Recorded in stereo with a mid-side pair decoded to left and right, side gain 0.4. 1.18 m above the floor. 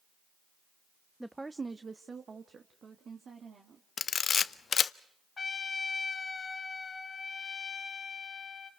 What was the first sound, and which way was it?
A woman speaking, 5° right.